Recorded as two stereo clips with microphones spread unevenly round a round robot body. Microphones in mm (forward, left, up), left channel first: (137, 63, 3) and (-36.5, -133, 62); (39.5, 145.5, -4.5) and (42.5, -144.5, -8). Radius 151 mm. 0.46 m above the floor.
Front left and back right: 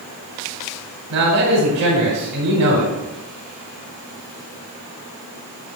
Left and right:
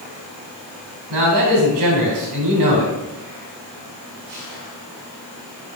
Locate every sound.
1.1 s a man speaking: 115° right, 3 m